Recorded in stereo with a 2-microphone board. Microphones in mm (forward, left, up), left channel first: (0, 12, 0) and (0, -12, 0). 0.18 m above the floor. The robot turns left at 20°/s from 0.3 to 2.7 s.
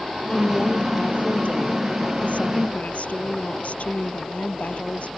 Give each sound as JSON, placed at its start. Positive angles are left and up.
{"t": 0.3, "sound": "a woman speaking", "azimuth_deg": 130}